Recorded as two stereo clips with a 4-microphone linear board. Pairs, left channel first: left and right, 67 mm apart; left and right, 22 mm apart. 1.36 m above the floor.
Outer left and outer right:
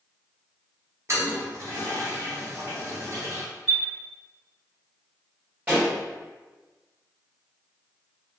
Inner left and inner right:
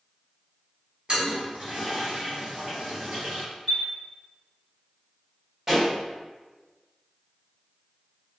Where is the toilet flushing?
45° right (ahead or behind), 0.9 m.